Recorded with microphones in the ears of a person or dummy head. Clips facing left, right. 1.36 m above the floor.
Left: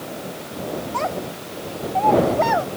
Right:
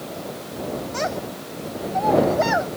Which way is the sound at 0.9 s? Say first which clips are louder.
Left 1 dB; 20° right (ahead or behind).